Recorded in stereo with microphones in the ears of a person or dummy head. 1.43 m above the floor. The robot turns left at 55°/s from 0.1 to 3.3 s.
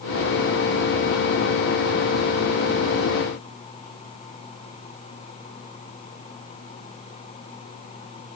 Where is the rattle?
I don't hear a rattle.